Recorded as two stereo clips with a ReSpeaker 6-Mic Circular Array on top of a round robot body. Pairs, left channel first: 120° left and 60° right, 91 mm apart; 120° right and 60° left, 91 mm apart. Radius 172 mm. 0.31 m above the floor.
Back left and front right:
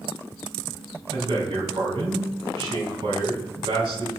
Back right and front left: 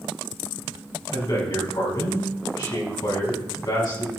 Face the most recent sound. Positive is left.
turn(degrees=-80)